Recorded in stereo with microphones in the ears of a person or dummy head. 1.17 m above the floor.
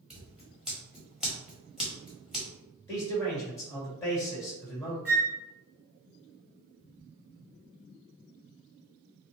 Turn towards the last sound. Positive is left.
turn(degrees=-5)  # may be behind; listen again after turning